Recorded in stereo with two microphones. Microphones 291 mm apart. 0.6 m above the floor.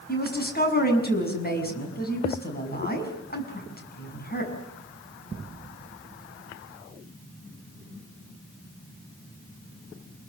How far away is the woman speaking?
About 6.5 m.